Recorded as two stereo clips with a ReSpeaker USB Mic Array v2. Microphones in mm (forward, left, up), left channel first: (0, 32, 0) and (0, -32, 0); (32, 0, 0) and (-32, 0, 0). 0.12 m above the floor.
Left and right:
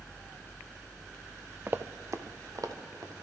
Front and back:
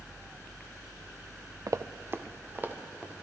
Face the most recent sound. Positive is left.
turn(degrees=-115)